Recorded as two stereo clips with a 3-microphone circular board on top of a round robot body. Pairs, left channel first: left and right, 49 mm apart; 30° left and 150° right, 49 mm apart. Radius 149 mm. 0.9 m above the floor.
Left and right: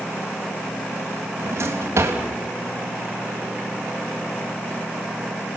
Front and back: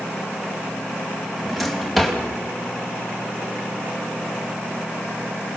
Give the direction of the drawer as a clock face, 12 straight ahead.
2 o'clock.